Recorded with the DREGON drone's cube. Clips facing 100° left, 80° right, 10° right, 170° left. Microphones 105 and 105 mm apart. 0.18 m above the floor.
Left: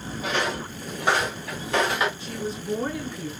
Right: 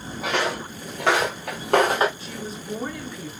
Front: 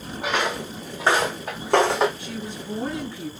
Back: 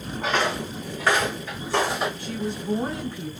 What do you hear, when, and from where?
0.2 s footsteps: 95° right, 1.1 m; by 2.1 s 20° right, 0.6 m
2.2 s a woman speaking: 170° right, 1.1 m